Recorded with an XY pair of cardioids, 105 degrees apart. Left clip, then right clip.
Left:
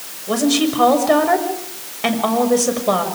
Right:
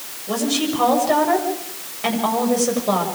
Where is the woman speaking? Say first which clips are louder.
Left 4 dB; 25° left, 7 m.